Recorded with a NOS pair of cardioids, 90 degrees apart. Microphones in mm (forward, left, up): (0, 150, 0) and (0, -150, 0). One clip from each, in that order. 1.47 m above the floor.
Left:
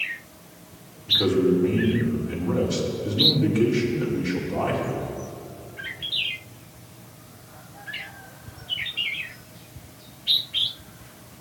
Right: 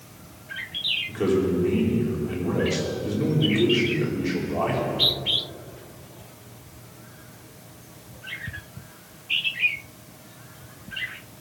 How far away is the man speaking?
About 5 m.